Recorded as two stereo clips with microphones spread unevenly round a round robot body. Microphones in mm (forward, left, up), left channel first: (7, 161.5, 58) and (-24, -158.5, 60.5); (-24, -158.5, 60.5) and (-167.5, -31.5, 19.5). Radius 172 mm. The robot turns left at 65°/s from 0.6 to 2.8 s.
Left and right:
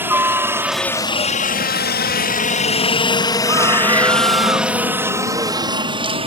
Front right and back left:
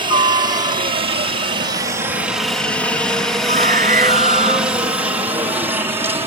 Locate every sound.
0.0 s a helicopter: straight behind; by 6.3 s 160° right
3.5 s a scream: 175° right